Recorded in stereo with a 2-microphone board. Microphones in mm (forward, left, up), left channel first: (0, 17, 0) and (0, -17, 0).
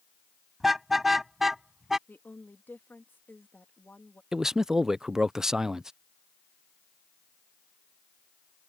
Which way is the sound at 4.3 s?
15° right (ahead or behind).